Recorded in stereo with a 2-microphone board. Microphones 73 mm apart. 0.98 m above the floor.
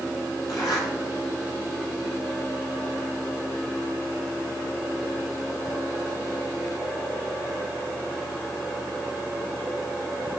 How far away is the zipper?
About 3.5 m.